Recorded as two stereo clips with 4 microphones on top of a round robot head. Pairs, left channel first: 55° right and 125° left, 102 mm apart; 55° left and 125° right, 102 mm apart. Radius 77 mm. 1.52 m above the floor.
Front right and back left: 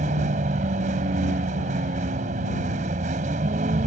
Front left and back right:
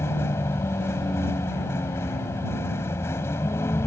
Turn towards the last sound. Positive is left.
turn(degrees=120)